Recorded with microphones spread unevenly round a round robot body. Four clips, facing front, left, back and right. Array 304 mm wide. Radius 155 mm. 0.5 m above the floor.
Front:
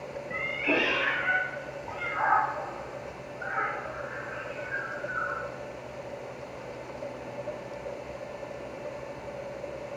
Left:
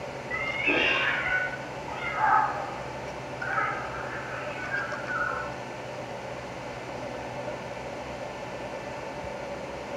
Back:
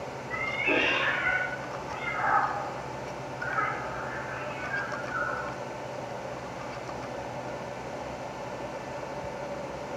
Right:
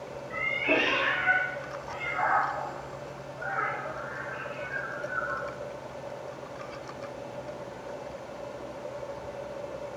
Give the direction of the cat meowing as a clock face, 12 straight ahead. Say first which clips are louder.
Right 1 dB, even; 12 o'clock.